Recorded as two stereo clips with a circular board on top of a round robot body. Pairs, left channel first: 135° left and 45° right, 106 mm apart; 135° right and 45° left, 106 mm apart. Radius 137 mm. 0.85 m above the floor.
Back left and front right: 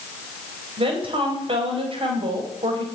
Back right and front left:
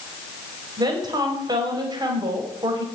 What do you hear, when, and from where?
0.8 s a woman speaking: 10° right, 4.5 m